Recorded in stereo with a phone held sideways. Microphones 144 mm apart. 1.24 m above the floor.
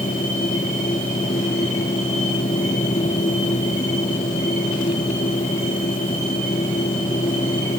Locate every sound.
0.0 s a machine running: 65° left (ahead or behind)